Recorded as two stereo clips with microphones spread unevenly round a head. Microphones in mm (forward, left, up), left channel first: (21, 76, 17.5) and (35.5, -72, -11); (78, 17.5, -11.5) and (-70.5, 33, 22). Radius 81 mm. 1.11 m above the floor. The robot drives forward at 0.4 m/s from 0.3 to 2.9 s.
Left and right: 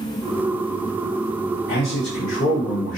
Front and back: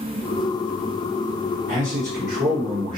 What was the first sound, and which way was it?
A man speaking, 135° left.